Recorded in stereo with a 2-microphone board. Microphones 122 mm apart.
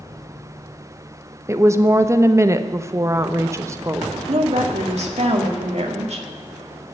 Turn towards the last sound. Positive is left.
turn(degrees=-65)  # may be behind; listen again after turning